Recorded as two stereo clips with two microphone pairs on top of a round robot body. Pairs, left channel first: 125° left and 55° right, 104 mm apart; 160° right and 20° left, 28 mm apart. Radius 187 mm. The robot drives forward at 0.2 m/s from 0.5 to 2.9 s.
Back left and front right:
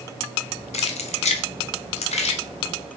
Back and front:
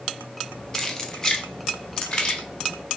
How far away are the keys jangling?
About 0.9 m.